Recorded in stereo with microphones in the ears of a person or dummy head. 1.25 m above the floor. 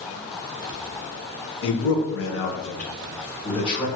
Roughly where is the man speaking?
Left.